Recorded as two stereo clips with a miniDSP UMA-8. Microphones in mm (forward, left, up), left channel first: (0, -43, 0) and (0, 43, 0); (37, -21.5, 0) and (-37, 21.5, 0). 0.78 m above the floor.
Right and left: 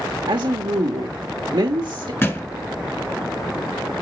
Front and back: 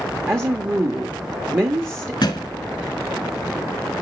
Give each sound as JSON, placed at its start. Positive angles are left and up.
{"t": 0.3, "sound": "a woman speaking", "azimuth_deg": 95, "distance_m": 1.0}
{"t": 2.2, "sound": "a thud", "azimuth_deg": -35, "distance_m": 1.2}